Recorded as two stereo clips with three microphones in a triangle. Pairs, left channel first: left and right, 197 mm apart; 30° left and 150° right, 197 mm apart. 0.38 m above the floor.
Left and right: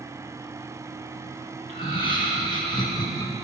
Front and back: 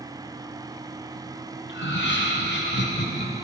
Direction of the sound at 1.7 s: 30° left.